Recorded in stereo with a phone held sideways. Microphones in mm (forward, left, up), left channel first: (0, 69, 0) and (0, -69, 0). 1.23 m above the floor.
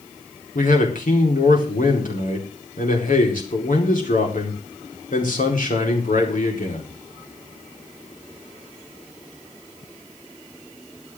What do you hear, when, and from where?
0.6 s a man speaking: 75° left (ahead or behind), 4 m